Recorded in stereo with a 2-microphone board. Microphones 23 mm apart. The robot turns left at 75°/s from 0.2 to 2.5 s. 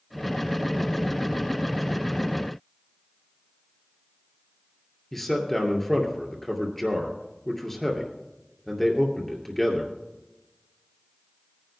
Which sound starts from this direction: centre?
A man speaking, at 5.1 s.